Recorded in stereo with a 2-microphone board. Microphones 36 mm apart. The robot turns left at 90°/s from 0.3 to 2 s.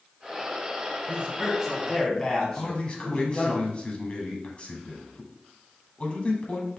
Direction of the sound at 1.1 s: 125° right.